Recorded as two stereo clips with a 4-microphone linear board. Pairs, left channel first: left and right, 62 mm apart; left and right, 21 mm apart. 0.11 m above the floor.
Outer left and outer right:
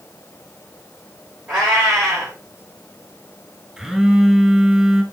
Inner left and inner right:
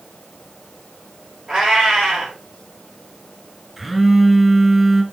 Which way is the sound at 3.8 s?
5° right (ahead or behind).